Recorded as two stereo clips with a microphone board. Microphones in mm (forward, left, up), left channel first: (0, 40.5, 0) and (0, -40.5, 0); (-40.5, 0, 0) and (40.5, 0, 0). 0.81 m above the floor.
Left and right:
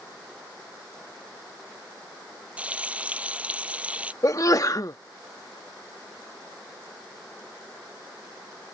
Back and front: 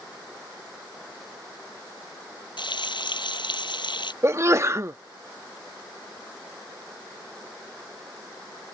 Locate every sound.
2.6 s frying: 165° right
4.2 s a sneeze: 50° left